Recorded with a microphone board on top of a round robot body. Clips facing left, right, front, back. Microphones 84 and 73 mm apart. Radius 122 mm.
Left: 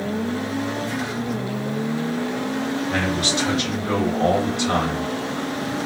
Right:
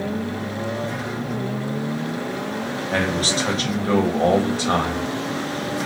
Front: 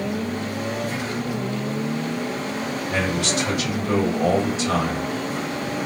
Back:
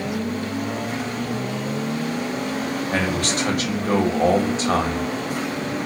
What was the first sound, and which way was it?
A man speaking, 140° right.